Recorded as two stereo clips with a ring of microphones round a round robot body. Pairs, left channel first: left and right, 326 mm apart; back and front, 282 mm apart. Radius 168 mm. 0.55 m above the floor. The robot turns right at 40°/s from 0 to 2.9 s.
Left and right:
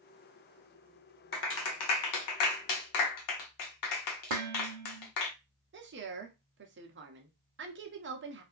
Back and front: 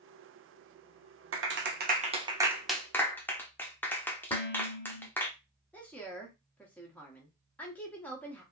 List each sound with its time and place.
1.3 s a clap: 35° left, 1.0 m; by 5.3 s 95° left, 1.0 m
4.3 s dishes clattering: 105° right, 0.9 m
5.7 s a woman speaking: 100° right, 0.8 m